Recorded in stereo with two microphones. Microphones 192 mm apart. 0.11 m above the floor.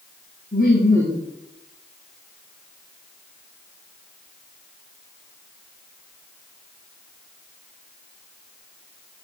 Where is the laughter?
45° left (ahead or behind), 6 m.